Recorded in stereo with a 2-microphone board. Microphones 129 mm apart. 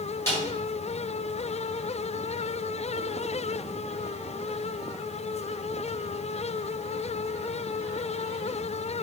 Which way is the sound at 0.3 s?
20° left (ahead or behind).